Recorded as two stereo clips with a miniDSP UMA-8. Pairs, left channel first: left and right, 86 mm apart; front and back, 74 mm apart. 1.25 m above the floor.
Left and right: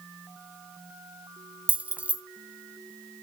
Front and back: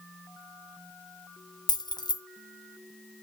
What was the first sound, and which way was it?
Keys jangling, 15° right.